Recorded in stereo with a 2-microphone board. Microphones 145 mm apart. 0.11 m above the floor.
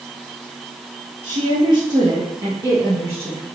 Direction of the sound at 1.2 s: 45° right (ahead or behind).